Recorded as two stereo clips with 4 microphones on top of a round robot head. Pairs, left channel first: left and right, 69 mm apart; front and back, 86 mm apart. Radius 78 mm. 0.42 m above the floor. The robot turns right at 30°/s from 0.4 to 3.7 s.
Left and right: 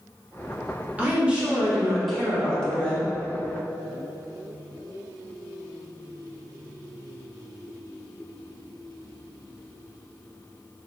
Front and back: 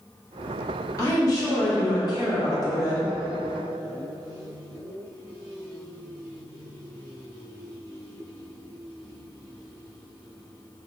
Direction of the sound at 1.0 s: 30° right.